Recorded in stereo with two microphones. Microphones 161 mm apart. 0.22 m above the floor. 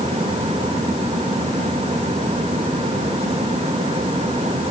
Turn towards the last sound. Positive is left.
No sound to turn to.